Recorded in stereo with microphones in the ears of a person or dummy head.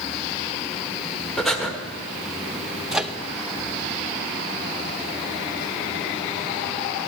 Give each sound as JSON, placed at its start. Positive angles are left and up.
{"t": 1.4, "sound": "breathing", "side_deg": 0, "distance_m": 1.5}
{"t": 2.9, "sound": "a microwave", "side_deg": 0, "distance_m": 0.7}